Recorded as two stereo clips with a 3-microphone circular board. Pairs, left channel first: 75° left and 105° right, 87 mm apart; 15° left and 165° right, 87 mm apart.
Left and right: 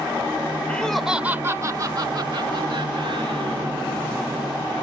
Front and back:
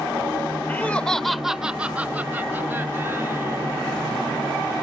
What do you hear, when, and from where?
0.7 s laughter: 35° left; by 3.7 s 105° right